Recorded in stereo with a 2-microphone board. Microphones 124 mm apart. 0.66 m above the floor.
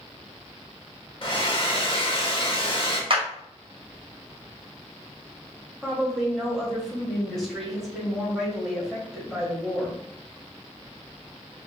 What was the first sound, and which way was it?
A hair dryer, 45° left (ahead or behind).